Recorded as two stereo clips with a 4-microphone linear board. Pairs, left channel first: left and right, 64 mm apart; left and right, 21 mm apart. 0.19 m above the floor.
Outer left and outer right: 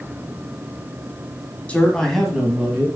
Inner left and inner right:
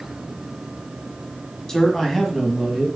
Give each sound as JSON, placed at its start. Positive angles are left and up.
{"t": 1.7, "sound": "a man speaking", "side_deg": 20, "distance_m": 1.7}